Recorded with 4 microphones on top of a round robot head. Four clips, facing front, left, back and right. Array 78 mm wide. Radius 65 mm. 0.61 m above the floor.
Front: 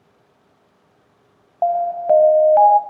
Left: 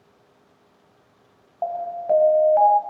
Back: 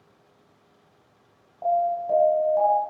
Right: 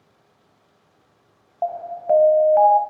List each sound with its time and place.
1.6 s an alarm: 5° right, 3.5 m